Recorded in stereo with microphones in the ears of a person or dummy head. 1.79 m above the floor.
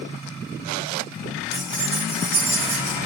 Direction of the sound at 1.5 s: 45° right (ahead or behind).